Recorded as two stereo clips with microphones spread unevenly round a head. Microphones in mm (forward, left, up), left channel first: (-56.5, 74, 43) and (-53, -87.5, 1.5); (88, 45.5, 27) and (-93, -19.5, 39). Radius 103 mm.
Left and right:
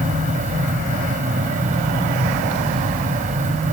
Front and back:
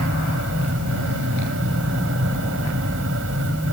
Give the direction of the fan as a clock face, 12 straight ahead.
4 o'clock.